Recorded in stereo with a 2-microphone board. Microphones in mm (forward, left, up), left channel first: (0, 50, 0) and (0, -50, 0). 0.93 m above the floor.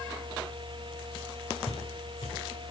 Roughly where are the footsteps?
Left.